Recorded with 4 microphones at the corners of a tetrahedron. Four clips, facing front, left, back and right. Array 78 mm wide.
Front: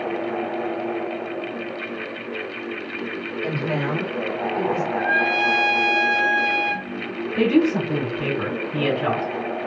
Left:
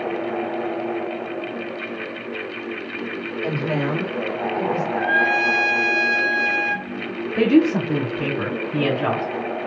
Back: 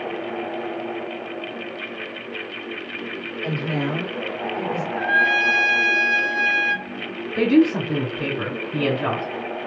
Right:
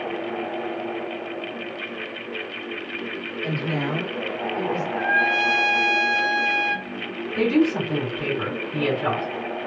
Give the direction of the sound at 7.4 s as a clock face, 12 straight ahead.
8 o'clock.